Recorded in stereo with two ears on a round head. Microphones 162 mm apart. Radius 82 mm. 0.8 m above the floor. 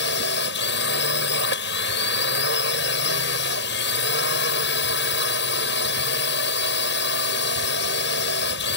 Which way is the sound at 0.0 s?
70° left (ahead or behind).